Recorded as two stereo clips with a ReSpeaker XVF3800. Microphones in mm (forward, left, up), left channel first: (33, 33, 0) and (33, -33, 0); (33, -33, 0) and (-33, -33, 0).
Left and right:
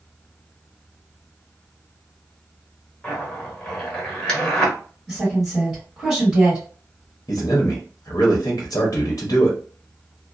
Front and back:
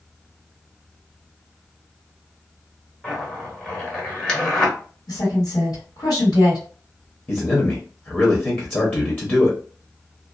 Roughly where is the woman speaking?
Ahead.